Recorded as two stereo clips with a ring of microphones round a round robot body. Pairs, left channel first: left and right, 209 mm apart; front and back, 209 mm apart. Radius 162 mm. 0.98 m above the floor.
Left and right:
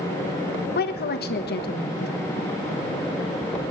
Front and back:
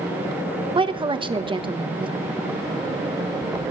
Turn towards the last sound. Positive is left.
turn(degrees=115)